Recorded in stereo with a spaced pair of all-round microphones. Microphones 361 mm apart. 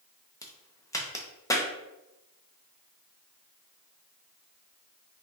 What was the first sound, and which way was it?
A crack, 10° left (ahead or behind).